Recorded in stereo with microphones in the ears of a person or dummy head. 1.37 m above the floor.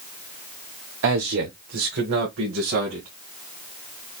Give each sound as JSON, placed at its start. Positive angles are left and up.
{"t": 1.0, "sound": "a man speaking", "side_deg": -55, "distance_m": 1.0}